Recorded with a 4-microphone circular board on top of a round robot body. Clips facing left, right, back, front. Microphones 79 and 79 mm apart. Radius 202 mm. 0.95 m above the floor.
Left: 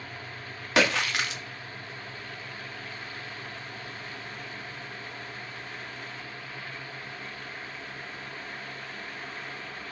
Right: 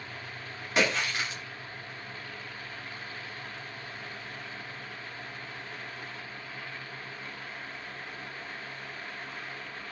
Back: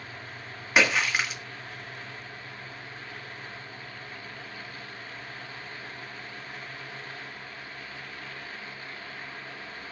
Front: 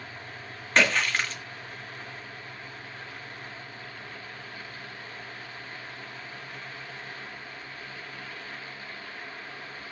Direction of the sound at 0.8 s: 95° left.